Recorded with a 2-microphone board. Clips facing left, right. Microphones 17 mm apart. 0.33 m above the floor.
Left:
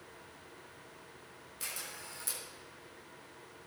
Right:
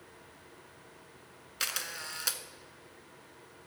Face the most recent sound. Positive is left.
turn(degrees=-80)